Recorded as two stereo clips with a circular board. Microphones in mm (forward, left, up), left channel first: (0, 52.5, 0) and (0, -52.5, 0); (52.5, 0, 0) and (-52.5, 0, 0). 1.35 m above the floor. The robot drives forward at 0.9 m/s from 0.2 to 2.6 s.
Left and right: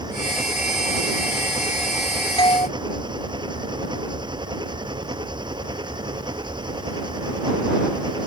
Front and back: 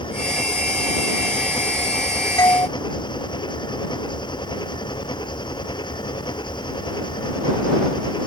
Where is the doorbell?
55° left.